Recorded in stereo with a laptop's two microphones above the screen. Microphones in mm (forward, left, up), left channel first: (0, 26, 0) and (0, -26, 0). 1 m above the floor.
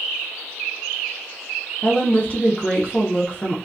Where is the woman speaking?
25° left (ahead or behind), 0.9 m.